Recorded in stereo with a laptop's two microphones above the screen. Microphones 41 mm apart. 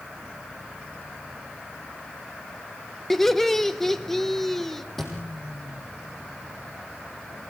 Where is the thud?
5° left (ahead or behind), 3.5 m.